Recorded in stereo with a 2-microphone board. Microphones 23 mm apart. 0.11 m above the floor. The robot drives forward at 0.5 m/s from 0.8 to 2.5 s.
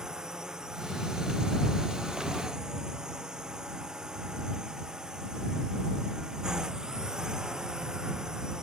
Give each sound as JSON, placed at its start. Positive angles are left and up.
{"t": 0.0, "sound": "a drone", "side_deg": -30}